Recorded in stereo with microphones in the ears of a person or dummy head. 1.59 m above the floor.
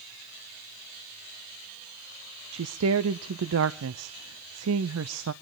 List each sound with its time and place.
2.5 s a woman speaking: 80° right, 0.6 m